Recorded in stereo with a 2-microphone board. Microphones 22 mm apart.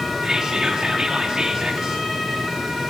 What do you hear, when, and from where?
0.2 s whispering: 35° right (ahead or behind), 1.0 m